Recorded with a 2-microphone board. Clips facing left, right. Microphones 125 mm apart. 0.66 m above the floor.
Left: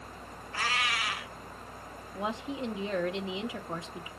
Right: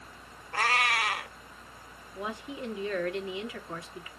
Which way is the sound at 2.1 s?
25° left (ahead or behind).